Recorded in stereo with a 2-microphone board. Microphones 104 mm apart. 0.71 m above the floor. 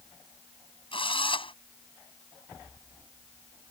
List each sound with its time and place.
0.9 s a drill: 60° left (ahead or behind)